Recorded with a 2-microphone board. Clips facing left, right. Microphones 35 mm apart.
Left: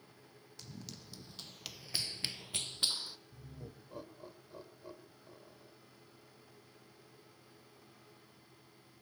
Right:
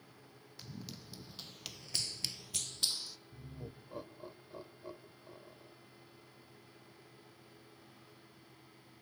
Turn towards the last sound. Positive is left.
turn(degrees=-10)  # may be behind; listen again after turning